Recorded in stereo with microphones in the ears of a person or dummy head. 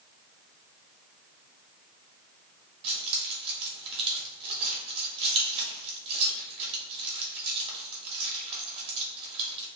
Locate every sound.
2.8 s keys jangling: 30° right (ahead or behind), 1.0 m